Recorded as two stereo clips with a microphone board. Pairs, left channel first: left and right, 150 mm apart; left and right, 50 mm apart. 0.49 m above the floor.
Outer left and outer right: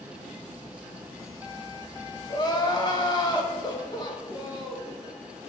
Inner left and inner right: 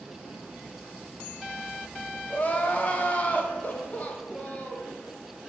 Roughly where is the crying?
Left.